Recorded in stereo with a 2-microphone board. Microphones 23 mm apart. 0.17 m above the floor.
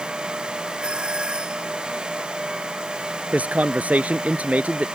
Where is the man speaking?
60° right (ahead or behind).